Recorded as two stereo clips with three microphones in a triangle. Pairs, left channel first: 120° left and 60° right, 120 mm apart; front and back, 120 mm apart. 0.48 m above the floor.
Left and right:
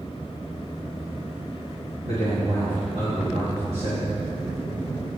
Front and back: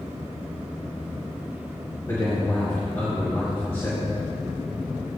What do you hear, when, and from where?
2.0 s a man speaking: 70° right, 3.5 m